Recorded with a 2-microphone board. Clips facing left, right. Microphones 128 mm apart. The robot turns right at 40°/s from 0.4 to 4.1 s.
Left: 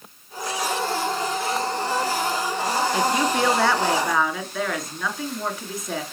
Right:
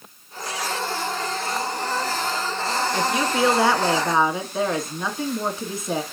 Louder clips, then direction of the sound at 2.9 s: Even; 170° left.